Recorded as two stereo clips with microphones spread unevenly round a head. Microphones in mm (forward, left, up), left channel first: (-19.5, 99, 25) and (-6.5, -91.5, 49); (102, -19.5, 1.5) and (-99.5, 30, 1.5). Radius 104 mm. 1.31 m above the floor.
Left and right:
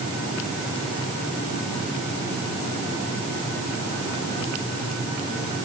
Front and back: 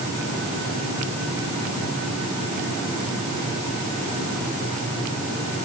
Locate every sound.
Only background noise.